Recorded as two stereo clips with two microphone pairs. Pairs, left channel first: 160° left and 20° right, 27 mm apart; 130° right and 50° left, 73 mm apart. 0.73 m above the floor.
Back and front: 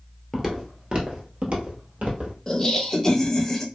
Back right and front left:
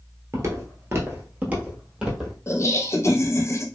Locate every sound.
0.3 s footsteps: 55° left, 0.9 m; by 2.4 s 30° right, 1.5 m
2.5 s laughter: 135° right, 0.7 m